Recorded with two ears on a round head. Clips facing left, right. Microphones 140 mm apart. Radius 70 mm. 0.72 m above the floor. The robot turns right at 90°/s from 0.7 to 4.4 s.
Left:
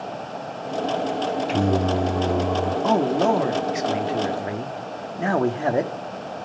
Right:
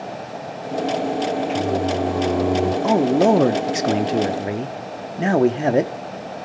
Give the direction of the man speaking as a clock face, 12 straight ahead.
6 o'clock.